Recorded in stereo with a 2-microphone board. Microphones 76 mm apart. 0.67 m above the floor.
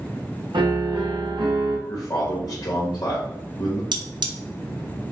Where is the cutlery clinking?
65° right (ahead or behind), 0.5 m.